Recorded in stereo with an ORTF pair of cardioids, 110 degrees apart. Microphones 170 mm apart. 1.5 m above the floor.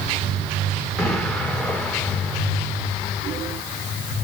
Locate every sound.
1.0 s an explosion: 5° left, 2.5 m